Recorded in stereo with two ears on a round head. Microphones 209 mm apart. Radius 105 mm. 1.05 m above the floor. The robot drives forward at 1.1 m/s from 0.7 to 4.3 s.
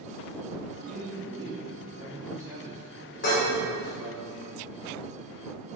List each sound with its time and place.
0.9 s a man speaking: 30° right (ahead or behind), 1.4 m; by 4.2 s 10° right (ahead or behind), 5 m
3.2 s dishes clattering: 50° left (ahead or behind), 3 m; by 3.5 s 45° left (ahead or behind), 3 m